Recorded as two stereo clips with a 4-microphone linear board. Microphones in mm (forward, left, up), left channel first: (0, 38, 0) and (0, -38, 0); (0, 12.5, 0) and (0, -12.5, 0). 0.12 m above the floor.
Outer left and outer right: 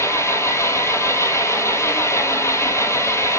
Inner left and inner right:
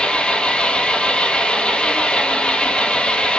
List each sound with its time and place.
0.0 s an engine running: 40° left (ahead or behind), 1.2 m